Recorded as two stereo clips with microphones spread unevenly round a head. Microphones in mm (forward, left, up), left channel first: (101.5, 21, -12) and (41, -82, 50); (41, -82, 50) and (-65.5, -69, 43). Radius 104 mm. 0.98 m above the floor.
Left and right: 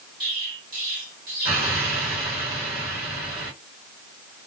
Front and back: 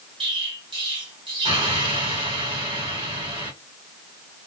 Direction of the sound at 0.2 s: 150° right.